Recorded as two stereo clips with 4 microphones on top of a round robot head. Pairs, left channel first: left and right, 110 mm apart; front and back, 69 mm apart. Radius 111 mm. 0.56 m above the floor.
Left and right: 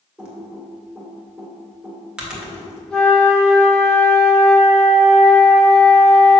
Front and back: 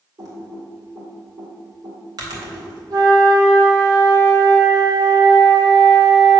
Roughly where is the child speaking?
I don't hear a child speaking.